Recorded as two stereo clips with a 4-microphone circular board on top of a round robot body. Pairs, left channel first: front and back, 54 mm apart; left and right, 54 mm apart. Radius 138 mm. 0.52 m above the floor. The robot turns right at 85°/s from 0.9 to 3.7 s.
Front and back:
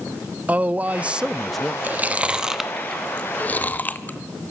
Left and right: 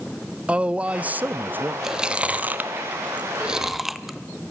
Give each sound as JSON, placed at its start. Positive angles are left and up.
{"t": 0.5, "sound": "a man speaking", "azimuth_deg": -145, "distance_m": 0.7}
{"t": 1.8, "sound": "chewing", "azimuth_deg": -170, "distance_m": 1.2}